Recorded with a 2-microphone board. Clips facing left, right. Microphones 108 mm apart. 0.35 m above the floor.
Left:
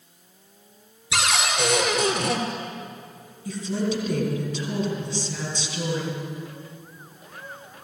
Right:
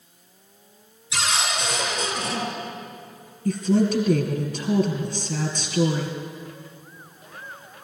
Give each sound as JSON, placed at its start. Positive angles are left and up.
{"t": 1.1, "sound": "a cupboard door", "side_deg": 70, "distance_m": 2.0}
{"t": 3.5, "sound": "a woman speaking", "side_deg": -55, "distance_m": 3.5}